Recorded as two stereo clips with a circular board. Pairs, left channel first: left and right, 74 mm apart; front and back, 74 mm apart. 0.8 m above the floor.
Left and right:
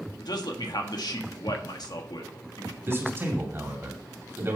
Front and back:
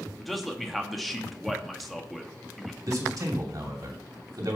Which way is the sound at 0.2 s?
90° left.